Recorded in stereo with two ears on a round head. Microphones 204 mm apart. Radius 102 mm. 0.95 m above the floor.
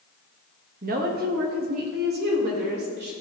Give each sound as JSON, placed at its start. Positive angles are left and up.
{"t": 0.8, "sound": "a woman speaking", "side_deg": -40, "distance_m": 1.3}